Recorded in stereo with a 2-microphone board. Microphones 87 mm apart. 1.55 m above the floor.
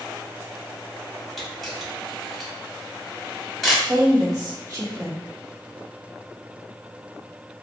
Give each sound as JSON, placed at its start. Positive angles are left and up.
{"t": 1.4, "sound": "a camera shutter", "side_deg": 0, "distance_m": 1.4}
{"t": 3.9, "sound": "a woman speaking", "side_deg": -40, "distance_m": 1.1}